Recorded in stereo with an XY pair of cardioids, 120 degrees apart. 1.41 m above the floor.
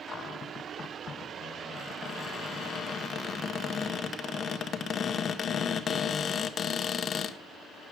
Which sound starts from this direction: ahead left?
A cupboard door, at 0.1 s.